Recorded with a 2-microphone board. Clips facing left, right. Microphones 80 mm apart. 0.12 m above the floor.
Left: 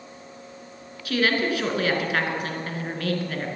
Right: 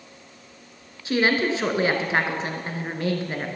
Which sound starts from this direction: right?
A woman speaking, at 1.1 s.